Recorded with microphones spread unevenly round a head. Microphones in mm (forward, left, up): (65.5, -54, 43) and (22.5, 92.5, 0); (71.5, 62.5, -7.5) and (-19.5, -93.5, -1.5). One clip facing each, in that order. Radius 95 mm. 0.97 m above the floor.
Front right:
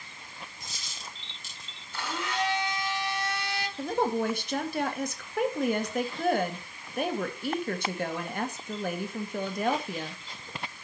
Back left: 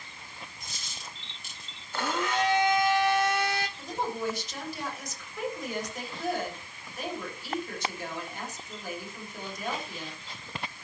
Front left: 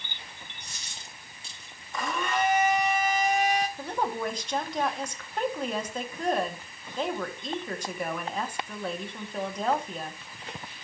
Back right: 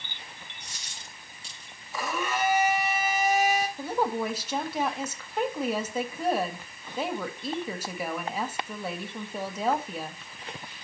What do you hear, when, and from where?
0.6 s a dropped coin: 70° left, 4 m
1.9 s a blender: 155° left, 0.9 m
3.8 s a woman speaking: 35° right, 1.7 m